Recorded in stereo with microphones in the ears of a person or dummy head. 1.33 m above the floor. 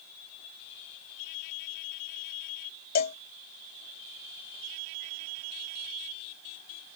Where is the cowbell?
55° left (ahead or behind).